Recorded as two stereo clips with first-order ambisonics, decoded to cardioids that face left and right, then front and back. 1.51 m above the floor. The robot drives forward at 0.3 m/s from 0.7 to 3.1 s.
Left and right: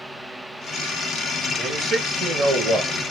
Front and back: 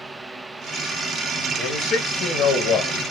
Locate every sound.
1.6 s a man speaking: 30° right, 2.0 m; by 3.0 s 35° right, 1.6 m